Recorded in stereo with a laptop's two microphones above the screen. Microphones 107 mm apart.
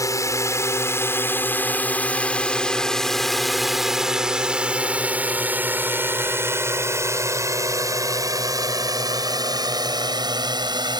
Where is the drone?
30° left (ahead or behind); by 11.0 s 45° right (ahead or behind).